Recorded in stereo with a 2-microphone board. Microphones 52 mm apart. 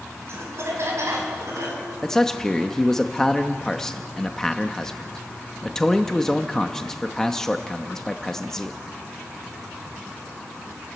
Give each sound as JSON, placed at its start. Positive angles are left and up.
{"t": 0.3, "sound": "laughter", "side_deg": -60, "distance_m": 4.0}
{"t": 2.0, "sound": "a man speaking", "side_deg": 10, "distance_m": 0.9}